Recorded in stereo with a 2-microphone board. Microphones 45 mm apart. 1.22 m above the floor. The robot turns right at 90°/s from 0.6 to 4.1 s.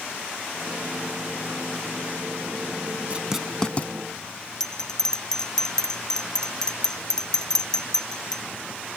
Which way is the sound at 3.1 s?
30° right (ahead or behind).